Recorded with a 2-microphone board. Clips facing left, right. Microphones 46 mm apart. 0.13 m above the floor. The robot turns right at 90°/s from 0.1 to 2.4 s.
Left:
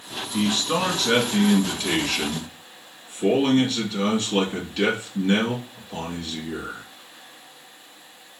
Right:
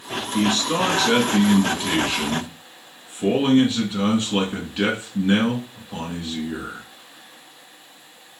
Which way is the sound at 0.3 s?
20° left (ahead or behind).